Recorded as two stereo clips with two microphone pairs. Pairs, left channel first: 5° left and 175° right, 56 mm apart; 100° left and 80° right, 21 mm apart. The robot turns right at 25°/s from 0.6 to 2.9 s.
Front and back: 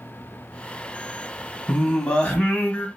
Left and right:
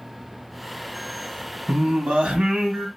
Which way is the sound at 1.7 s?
75° right.